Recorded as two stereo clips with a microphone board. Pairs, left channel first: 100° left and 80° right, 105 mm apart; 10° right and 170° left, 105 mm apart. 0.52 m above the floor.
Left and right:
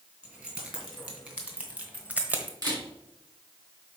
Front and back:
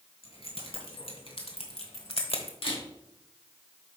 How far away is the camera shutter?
About 3 m.